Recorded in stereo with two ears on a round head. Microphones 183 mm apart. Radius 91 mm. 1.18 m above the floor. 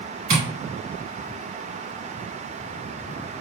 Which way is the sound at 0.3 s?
60° right (ahead or behind).